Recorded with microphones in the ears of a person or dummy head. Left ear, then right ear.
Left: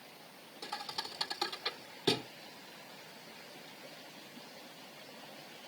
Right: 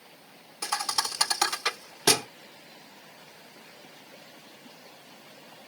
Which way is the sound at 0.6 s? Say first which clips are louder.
Right 12 dB; 50° right (ahead or behind).